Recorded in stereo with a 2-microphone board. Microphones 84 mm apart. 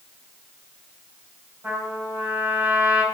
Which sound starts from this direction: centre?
A trumpet, at 1.6 s.